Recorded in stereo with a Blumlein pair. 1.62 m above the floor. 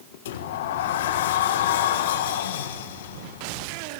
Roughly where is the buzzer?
No buzzer in this recording.